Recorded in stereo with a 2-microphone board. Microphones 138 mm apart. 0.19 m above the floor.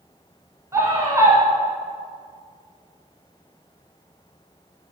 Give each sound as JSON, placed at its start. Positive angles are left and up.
{"t": 0.7, "sound": "a scream", "side_deg": -20, "distance_m": 1.5}